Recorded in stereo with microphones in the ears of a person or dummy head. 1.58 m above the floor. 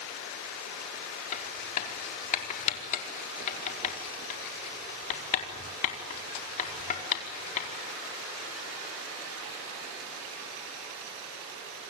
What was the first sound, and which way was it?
Writing, 40° left (ahead or behind).